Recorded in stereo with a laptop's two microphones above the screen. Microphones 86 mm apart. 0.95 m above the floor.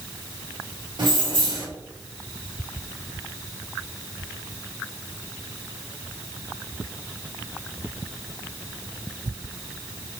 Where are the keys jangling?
65° right (ahead or behind), 1.8 m.